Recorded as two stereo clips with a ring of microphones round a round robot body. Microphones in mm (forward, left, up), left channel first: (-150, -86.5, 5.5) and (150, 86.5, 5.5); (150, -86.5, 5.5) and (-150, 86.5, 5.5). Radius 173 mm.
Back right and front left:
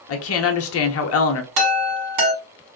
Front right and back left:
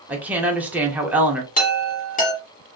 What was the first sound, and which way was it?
A woman speaking, 125° right.